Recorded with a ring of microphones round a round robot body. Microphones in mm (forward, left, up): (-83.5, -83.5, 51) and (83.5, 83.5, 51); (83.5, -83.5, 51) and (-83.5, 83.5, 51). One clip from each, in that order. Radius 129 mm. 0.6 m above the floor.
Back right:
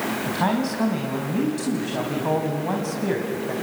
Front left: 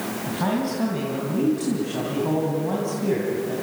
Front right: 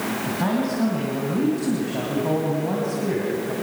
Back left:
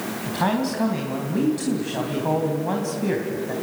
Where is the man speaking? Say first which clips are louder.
Back right 1 dB, back left 4 dB; 175° left, 3.5 m.